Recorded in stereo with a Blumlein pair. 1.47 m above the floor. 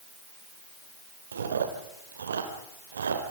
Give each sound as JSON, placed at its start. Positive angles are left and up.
{"t": 1.3, "sound": "chewing", "azimuth_deg": -65, "distance_m": 3.0}